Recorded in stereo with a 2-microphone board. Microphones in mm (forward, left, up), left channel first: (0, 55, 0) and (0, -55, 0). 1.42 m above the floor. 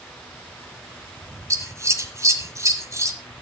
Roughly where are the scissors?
Right.